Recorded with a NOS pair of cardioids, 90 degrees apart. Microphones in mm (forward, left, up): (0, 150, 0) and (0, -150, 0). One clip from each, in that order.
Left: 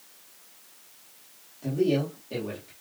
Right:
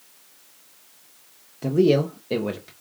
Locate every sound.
1.6 s a man speaking: 65° right, 0.9 m